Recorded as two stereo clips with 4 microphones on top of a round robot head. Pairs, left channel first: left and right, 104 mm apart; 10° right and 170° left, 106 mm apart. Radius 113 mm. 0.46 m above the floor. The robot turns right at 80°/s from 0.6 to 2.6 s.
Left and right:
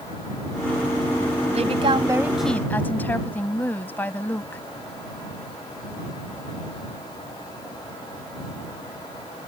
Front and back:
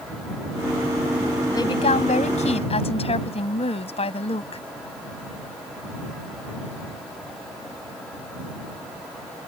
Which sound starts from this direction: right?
A woman speaking, at 1.5 s.